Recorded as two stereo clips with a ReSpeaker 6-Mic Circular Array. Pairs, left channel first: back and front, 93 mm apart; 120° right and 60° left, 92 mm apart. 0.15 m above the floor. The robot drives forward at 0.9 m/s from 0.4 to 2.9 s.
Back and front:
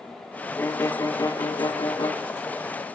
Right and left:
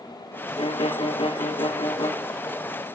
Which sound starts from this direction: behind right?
A violin, at 0.6 s.